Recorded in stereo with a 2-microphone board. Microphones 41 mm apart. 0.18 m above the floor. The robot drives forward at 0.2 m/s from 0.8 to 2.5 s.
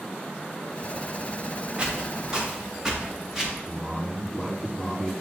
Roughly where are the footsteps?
Right.